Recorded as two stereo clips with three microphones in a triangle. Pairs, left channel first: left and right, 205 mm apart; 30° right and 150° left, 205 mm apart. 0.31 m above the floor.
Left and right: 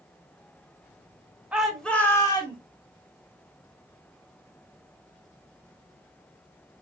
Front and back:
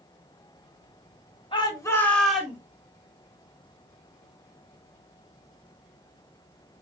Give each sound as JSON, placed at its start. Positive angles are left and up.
{"t": 1.5, "sound": "a shout", "azimuth_deg": -10, "distance_m": 1.6}